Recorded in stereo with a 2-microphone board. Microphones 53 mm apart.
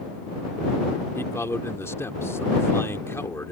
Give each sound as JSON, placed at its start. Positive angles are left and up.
{"t": 1.1, "sound": "a man speaking", "side_deg": 55}